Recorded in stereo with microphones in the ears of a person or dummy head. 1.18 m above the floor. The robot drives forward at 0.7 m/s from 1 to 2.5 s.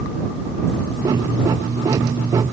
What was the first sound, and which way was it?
Only background noise.